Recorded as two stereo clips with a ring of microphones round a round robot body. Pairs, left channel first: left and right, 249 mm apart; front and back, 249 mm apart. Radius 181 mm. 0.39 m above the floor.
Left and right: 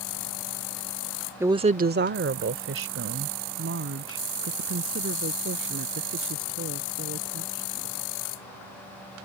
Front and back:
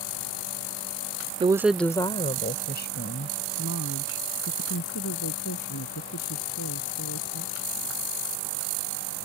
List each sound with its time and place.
1.4 s a woman speaking: 160° right; by 7.9 s 50° right